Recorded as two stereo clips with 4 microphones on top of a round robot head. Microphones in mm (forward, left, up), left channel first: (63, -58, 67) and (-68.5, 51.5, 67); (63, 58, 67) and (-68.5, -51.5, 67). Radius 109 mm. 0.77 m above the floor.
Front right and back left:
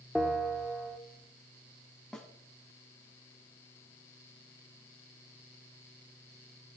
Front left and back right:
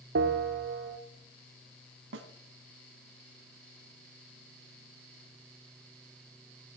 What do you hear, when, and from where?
0.1 s a bell: 130° right, 1.6 m
2.1 s a snare drum: 125° right, 1.8 m